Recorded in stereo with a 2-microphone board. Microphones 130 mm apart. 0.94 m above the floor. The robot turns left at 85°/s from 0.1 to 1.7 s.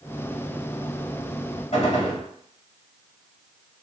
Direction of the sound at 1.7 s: 55° left (ahead or behind).